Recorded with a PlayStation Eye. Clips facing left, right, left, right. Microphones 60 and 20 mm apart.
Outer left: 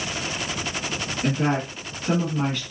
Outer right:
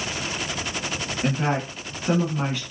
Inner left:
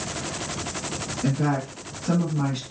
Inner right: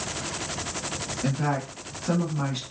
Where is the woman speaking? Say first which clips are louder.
Outer left 1 dB, inner left 3 dB; 10° right (ahead or behind), 1.0 m.